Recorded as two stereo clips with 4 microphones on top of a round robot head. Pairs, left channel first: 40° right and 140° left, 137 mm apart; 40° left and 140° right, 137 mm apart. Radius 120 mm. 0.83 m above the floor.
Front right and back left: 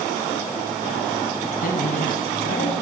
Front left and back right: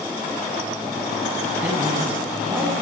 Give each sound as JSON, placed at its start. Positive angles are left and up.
{"t": 1.6, "sound": "a man speaking", "azimuth_deg": -65, "distance_m": 9.0}